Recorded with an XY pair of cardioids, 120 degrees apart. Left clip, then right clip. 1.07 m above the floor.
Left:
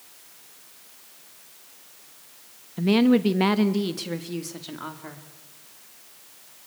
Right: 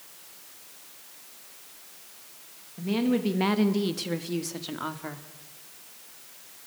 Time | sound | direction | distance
2.8 | a woman speaking | 65° left | 1.0 m